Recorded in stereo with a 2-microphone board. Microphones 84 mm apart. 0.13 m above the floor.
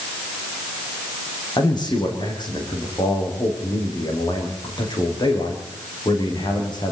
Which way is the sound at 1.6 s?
60° left (ahead or behind).